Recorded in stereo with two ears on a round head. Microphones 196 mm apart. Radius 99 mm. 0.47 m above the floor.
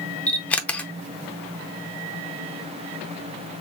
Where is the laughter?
No laughter in this recording.